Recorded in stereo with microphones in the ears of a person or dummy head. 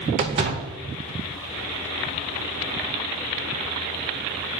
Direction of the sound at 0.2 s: 25° right (ahead or behind).